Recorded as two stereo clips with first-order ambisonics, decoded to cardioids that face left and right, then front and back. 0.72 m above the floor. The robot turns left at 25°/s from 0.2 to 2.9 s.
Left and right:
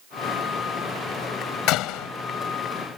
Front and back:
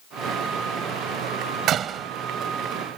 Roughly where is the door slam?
Behind left.